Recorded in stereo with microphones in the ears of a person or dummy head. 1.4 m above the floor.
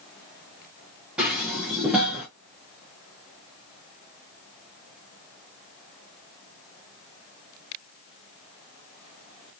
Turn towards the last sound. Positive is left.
turn(degrees=-5)  # may be behind; listen again after turning